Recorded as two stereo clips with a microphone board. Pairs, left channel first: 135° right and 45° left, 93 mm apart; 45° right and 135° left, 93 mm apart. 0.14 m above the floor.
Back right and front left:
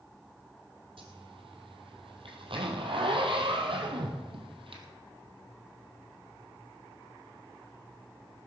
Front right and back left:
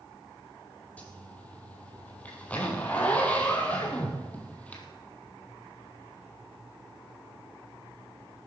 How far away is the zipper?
About 2.5 m.